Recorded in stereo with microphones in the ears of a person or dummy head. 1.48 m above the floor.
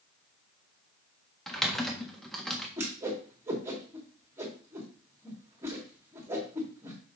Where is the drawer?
I don't hear a drawer.